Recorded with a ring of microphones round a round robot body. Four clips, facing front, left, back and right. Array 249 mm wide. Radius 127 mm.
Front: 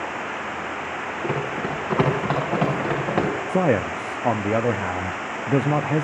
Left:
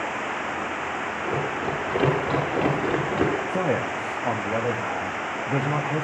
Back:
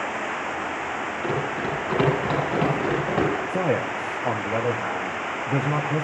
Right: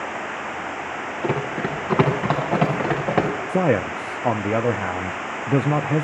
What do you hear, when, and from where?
1.2 s running footsteps: 75° right, 8.5 m; by 3.3 s 65° right, 8.5 m
3.5 s a man speaking: 50° right, 0.6 m